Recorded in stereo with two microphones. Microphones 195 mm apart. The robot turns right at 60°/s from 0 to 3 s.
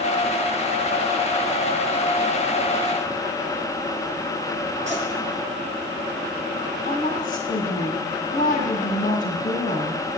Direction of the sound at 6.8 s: 40° left (ahead or behind).